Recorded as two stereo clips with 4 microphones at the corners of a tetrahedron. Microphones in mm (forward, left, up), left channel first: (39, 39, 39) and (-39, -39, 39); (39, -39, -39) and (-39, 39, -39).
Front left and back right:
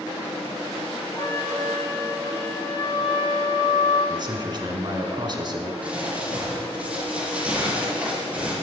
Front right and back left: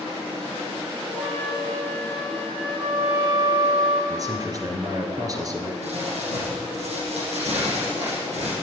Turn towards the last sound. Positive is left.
turn(degrees=150)